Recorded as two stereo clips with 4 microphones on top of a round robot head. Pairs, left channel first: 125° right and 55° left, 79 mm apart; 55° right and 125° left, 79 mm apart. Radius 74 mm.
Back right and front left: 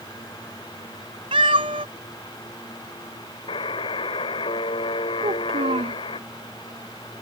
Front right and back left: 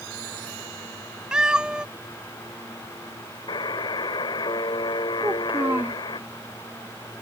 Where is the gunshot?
No gunshot in this recording.